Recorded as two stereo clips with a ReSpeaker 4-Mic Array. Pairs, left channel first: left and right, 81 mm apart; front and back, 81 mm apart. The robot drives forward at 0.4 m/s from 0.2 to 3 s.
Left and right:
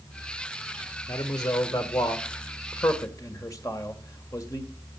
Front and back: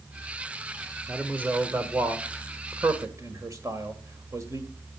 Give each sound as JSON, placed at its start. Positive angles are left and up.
{"t": 1.1, "sound": "a man speaking", "azimuth_deg": 110, "distance_m": 1.5}